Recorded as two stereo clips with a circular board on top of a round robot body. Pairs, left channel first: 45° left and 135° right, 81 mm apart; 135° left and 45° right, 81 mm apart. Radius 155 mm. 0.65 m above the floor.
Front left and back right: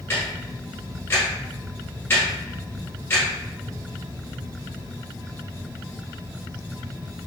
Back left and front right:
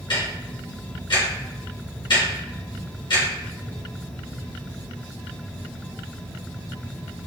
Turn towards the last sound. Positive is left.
turn(degrees=110)